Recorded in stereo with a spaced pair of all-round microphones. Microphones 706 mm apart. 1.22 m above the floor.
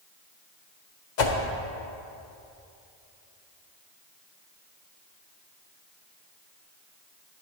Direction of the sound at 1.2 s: 80° left.